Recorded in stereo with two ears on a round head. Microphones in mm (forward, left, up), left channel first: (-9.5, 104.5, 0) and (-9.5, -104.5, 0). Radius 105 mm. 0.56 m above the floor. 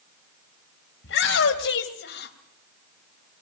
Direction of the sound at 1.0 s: 60° left (ahead or behind).